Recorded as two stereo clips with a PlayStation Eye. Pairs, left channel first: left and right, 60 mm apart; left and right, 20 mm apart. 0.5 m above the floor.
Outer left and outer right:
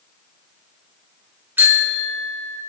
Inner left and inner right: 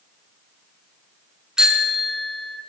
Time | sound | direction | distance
1.6 | a bicycle bell | 35° right (ahead or behind) | 4 m